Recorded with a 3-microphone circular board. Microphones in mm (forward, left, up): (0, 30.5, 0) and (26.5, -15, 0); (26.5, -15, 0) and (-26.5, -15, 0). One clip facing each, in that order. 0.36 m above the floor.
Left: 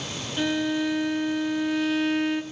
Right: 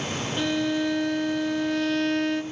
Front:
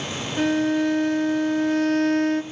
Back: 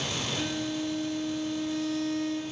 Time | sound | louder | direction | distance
0.4 | a violin | left 1 dB, front 15 dB | 35° left | 0.7 m